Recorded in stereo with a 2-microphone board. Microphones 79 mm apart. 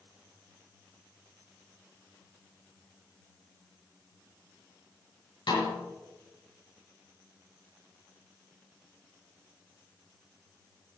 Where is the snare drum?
85° left, 6 m.